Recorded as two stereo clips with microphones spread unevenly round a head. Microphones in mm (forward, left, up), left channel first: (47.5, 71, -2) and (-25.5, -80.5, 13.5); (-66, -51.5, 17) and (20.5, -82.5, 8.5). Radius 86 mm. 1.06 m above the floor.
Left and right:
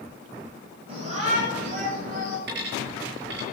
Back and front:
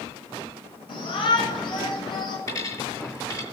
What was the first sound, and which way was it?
A shout, 175° right.